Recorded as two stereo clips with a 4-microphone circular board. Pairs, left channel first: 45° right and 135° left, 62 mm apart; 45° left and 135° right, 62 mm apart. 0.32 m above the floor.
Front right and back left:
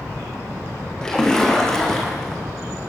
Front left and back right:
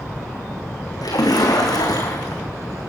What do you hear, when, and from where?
1.0 s a splash: 35° left, 4 m